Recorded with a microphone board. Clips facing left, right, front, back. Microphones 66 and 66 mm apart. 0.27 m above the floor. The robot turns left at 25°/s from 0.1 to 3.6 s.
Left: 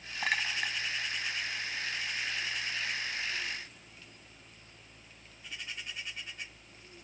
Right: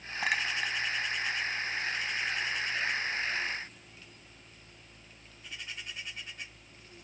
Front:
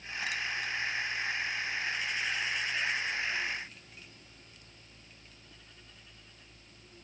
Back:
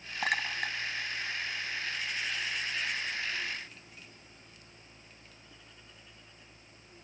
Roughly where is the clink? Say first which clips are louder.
Right 1 dB, back 4 dB; behind.